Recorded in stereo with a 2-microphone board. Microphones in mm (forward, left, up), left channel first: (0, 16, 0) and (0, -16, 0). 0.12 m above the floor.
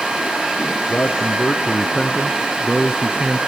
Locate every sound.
0.9 s a man speaking: 50° left (ahead or behind), 1.9 m; by 3.4 s 35° right (ahead or behind), 1.5 m